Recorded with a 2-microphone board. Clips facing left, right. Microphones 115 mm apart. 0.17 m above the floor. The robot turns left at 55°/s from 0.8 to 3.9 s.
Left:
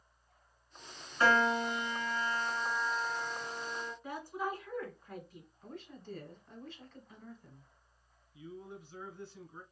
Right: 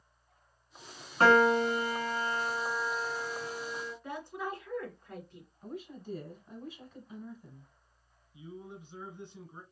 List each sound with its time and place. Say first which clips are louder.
1.2 s a piano: right 6 dB; 85° right, 0.8 m; by 3.9 s 125° left, 0.8 m
4.0 s a woman speaking: left 2 dB; 10° left (ahead or behind), 1.8 m
5.6 s a woman speaking: right 6 dB; 10° right (ahead or behind), 1.2 m
8.3 s a man speaking: right 1 dB; 20° right (ahead or behind), 1.4 m